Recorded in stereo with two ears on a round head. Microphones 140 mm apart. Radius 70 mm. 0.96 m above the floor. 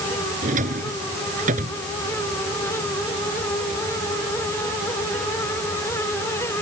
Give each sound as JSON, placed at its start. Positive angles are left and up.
{"t": 0.4, "sound": "a drawer", "side_deg": -50}